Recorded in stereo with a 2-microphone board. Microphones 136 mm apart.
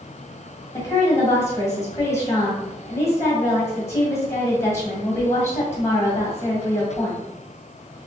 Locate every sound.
0.7 s a woman speaking: 20° left (ahead or behind), 1.6 m